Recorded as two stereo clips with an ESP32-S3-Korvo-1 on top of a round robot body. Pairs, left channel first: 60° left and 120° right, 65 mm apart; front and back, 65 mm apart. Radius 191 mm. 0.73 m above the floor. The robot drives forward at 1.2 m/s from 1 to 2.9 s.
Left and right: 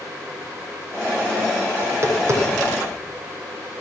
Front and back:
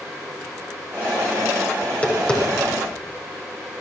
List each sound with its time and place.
1.8 s tapping: 70° right, 5.5 m; by 3.0 s 85° right, 5 m